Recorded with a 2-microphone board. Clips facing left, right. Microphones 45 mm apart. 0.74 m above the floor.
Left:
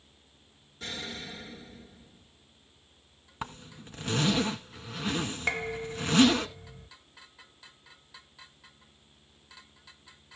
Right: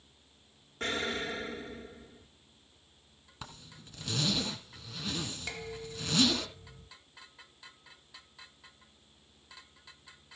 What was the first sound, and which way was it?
An explosion, 55° right (ahead or behind).